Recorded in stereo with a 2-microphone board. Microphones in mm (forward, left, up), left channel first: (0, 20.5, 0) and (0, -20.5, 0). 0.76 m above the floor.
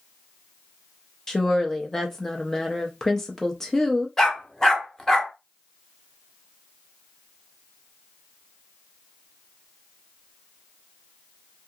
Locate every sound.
1.3 s a woman speaking: 15° left (ahead or behind), 0.6 m
4.2 s a dog barking: 10° left (ahead or behind), 0.9 m